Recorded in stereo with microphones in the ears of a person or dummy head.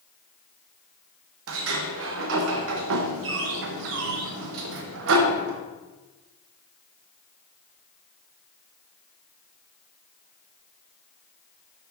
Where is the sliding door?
70° right (ahead or behind), 0.9 m.